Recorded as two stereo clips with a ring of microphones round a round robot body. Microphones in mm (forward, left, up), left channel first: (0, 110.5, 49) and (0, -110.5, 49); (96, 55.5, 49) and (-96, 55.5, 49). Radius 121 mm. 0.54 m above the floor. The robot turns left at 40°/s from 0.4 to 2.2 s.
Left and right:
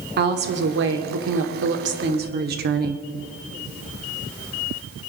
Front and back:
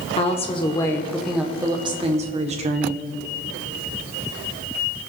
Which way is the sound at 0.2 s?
55° right.